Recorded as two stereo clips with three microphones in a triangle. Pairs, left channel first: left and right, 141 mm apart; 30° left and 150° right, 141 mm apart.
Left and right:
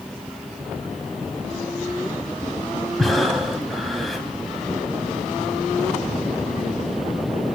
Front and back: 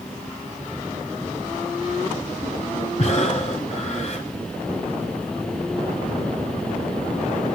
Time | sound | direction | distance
3.0 | breathing | straight ahead | 1.6 m